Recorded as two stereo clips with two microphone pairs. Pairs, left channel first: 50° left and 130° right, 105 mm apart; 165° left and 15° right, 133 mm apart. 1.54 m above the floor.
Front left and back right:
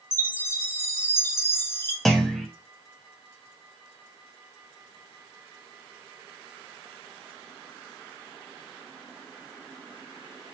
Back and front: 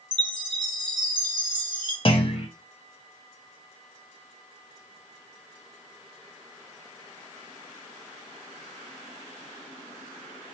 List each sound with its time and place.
0.1 s a chime: 10° left, 0.8 m
2.0 s a clunk: 135° left, 0.7 m